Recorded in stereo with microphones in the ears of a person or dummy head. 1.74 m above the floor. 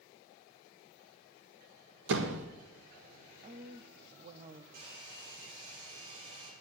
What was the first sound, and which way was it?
A door slam, 65° right (ahead or behind).